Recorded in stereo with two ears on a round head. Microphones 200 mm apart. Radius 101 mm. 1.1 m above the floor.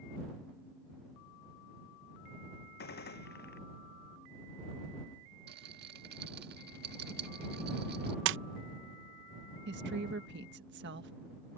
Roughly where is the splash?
Right.